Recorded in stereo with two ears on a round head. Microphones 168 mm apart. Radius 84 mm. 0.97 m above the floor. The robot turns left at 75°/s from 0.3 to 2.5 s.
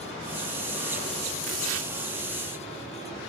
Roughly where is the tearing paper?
Ahead right.